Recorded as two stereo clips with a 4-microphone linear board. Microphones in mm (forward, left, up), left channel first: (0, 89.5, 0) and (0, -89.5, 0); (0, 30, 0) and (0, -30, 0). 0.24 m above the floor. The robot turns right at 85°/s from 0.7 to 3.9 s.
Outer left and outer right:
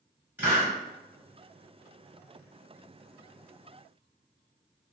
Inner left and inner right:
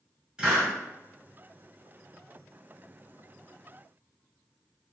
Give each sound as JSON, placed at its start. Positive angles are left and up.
{"t": 0.4, "sound": "a hiss", "side_deg": -10, "distance_m": 1.5}